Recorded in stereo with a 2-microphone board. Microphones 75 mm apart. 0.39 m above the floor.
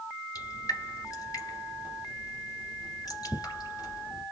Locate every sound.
0.3 s dripping: 60° left (ahead or behind), 1.8 m